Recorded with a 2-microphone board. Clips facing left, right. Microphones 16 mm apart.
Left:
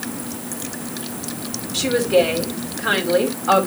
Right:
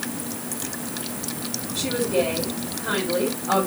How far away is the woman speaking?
About 3.5 m.